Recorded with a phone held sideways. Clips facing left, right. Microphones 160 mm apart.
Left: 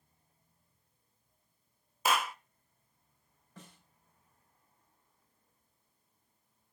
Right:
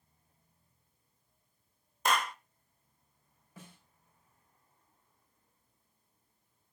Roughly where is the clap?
Centre.